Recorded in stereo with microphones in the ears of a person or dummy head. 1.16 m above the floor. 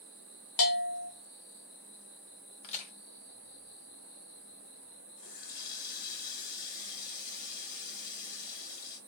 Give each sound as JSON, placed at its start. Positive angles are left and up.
{"t": 0.6, "sound": "a bell", "side_deg": 65, "distance_m": 1.4}
{"t": 2.6, "sound": "a crack", "side_deg": 35, "distance_m": 1.6}
{"t": 5.2, "sound": "a running tap", "side_deg": 50, "distance_m": 2.5}